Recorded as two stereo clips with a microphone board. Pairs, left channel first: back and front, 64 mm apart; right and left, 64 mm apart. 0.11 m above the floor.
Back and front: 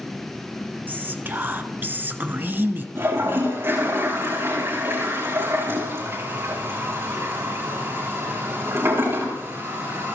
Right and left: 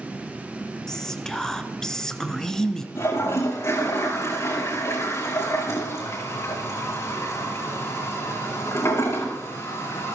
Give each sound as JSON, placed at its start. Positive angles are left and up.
{"t": 0.9, "sound": "whispering", "azimuth_deg": -15, "distance_m": 1.2}
{"t": 3.0, "sound": "a toilet flushing", "azimuth_deg": -50, "distance_m": 5.0}